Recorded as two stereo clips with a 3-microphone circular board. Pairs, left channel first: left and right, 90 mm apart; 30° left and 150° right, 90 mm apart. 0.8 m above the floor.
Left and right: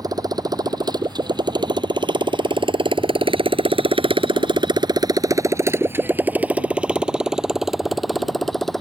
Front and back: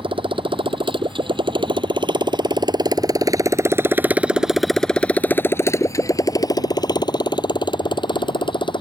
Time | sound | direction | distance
0.0 | a motorcycle | 135° right | ?